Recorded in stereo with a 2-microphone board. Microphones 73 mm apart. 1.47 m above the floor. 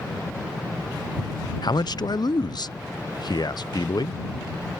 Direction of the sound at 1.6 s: 65° left (ahead or behind).